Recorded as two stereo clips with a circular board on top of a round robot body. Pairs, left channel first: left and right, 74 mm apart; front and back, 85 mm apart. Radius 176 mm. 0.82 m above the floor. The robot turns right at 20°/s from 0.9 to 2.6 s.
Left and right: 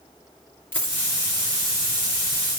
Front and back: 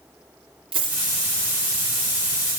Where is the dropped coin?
155° left, 2.5 m; by 1.1 s 160° left, 2.5 m.